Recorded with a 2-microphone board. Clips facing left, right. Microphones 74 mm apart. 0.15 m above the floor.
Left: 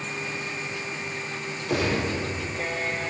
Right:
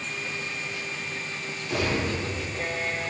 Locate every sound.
1.7 s a gunshot: 55° left (ahead or behind), 4 m